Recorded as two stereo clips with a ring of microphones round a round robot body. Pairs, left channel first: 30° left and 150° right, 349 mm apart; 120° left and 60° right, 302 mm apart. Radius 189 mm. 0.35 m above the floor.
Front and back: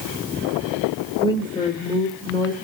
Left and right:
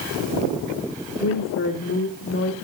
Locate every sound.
1.2 s a woman speaking: 105° left, 1.8 m